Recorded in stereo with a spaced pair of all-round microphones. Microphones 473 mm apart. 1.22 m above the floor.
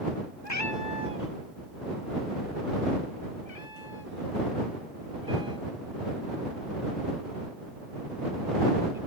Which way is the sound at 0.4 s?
30° left (ahead or behind).